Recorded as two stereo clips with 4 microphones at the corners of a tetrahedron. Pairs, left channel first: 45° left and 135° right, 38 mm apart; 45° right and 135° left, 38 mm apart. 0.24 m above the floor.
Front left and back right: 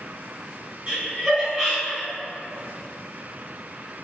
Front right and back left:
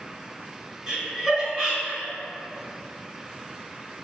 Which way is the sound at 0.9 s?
175° right.